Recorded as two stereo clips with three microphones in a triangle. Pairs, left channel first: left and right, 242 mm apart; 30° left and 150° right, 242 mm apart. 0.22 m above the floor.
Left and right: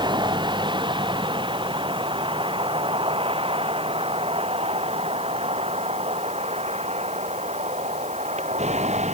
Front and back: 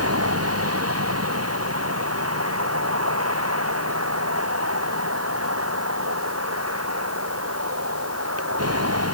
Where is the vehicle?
160° right; by 9.2 s 150° right.